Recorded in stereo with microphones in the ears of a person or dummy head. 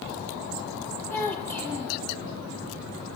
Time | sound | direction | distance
1.1 | a child speaking | 10° left (ahead or behind) | 1.0 m